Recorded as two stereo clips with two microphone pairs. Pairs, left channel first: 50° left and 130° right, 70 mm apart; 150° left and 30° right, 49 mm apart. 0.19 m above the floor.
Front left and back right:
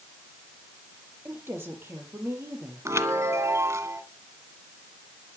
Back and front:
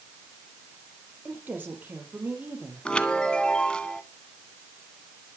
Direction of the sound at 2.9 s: 145° right.